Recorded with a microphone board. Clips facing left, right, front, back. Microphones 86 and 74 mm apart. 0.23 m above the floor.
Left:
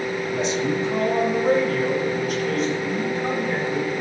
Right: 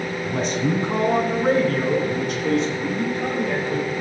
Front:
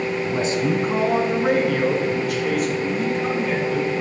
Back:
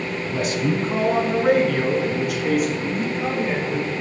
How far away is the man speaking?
About 1.5 m.